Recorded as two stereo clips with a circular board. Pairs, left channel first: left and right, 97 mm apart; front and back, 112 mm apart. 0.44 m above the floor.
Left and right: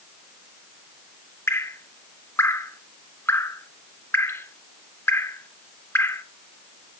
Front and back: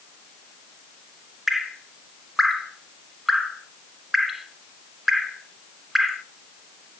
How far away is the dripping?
About 0.9 m.